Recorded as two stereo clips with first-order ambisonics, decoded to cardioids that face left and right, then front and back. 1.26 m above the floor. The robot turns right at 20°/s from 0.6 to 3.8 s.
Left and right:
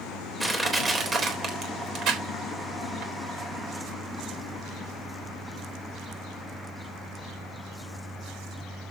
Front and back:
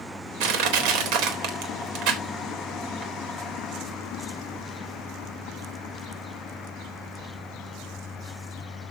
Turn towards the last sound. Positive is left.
turn(degrees=-110)